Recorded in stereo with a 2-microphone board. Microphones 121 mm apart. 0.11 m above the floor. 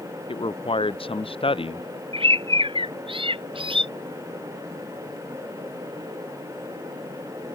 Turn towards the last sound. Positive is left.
turn(degrees=-45)  # may be behind; listen again after turning